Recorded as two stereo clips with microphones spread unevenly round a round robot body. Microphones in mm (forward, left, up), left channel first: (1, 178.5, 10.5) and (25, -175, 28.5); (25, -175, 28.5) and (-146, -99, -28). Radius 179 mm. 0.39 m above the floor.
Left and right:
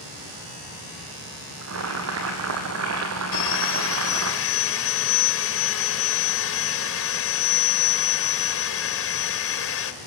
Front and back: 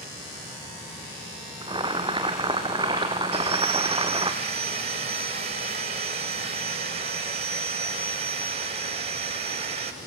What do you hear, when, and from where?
1.6 s boiling: 140° right, 3 m
3.3 s sawing: 130° left, 1.8 m